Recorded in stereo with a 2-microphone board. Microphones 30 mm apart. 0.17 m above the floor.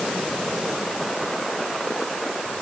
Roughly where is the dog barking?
I don't hear a dog barking.